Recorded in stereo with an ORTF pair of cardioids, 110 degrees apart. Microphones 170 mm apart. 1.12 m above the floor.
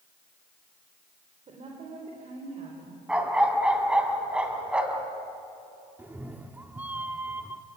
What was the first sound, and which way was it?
A woman speaking, 40° right.